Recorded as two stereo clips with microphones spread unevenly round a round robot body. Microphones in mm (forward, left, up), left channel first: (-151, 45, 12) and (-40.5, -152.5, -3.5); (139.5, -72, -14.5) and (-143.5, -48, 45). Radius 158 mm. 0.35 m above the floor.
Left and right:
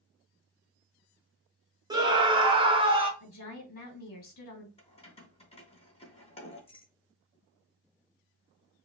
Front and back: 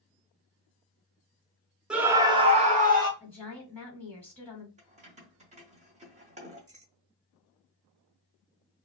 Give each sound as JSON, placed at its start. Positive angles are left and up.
{"t": 1.9, "sound": "a scream", "azimuth_deg": -70, "distance_m": 0.8}
{"t": 3.2, "sound": "a woman speaking", "azimuth_deg": 75, "distance_m": 2.0}
{"t": 4.8, "sound": "keys jangling", "azimuth_deg": 115, "distance_m": 0.9}